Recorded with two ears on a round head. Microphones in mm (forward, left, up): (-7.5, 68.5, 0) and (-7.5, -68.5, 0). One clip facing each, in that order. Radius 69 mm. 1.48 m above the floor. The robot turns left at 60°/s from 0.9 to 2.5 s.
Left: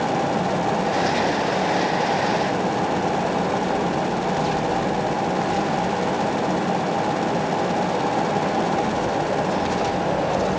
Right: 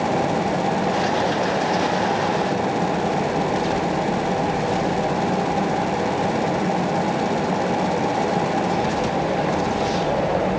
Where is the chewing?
No chewing in this recording.